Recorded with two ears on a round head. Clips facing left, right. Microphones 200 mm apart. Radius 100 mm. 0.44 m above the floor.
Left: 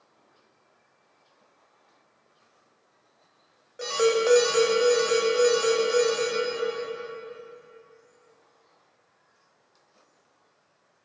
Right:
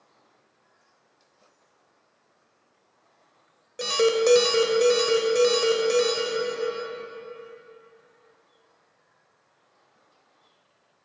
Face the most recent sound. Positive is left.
turn(degrees=-45)  # may be behind; listen again after turning